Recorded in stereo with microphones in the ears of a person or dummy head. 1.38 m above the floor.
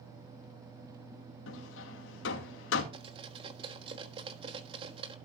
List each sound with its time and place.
1.5 s hammering: 85° left, 2.5 m
2.9 s cutlery clinking: 30° right (ahead or behind), 1.4 m